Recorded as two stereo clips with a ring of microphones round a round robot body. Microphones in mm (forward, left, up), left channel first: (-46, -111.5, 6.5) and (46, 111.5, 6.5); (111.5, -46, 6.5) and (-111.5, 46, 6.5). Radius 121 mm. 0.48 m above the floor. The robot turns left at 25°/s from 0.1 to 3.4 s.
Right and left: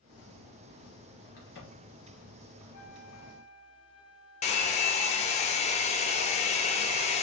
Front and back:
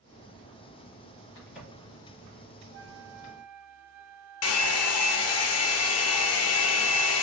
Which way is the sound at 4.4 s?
50° right.